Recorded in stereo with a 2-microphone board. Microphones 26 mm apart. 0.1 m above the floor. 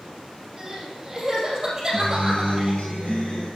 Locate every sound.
0.6 s crying: 20° right (ahead or behind), 3 m
1.9 s a guitar: 55° left (ahead or behind), 5 m